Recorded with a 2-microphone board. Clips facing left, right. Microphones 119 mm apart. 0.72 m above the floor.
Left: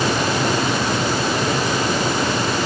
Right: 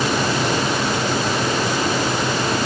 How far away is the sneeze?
No sneeze in this recording.